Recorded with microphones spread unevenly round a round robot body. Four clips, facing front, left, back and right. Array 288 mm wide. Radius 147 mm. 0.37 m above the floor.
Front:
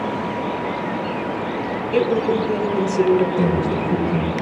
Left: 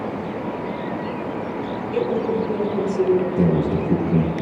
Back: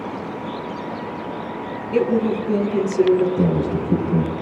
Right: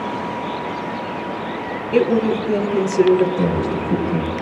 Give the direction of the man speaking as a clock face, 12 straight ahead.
8 o'clock.